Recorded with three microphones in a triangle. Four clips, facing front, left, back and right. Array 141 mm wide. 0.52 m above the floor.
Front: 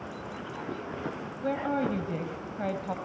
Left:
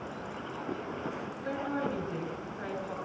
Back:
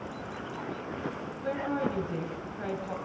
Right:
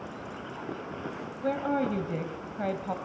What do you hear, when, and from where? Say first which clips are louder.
1.4 s a woman speaking: right 6 dB, front 2 dB; 60° right, 3.5 m